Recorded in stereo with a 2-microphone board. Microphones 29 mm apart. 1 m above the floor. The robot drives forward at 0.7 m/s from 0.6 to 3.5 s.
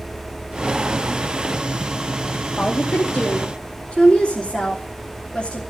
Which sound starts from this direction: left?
A woman speaking, at 2.6 s.